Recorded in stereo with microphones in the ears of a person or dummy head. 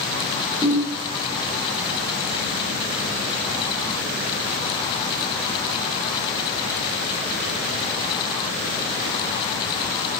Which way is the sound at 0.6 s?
25° left (ahead or behind).